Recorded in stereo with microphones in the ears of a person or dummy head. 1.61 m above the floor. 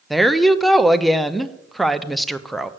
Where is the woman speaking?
5° right (ahead or behind), 0.5 m.